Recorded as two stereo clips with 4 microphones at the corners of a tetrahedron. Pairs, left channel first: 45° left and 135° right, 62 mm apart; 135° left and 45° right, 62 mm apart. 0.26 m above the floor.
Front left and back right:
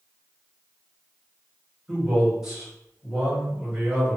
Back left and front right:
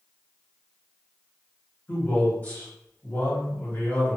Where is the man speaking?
155° left, 1.7 m.